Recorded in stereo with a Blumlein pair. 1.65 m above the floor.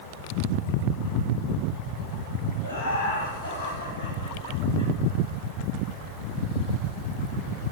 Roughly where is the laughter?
Ahead left.